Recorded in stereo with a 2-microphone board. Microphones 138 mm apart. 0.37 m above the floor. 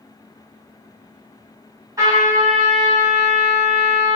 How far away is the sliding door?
No sliding door in this recording.